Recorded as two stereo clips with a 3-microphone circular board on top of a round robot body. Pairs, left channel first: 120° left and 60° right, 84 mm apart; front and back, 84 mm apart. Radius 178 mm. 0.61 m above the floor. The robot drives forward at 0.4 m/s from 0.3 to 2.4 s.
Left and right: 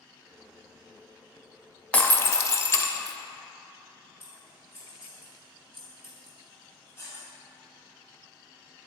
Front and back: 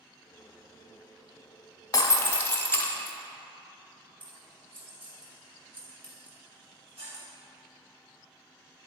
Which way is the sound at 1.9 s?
50° left.